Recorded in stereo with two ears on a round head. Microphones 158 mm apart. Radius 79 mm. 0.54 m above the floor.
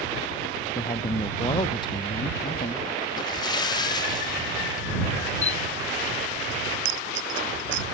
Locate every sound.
0.8 s a man speaking: 25° left (ahead or behind); by 2.9 s 30° left (ahead or behind)
3.2 s a splash: 25° left (ahead or behind)
5.4 s a camera shutter: 40° left (ahead or behind)
6.8 s a dropped coin: 85° right